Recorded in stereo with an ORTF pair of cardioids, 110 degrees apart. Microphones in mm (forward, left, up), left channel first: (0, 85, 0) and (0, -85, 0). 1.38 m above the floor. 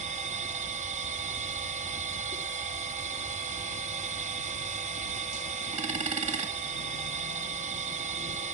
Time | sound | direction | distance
0.0 | a machine running | 40° right | 1.4 m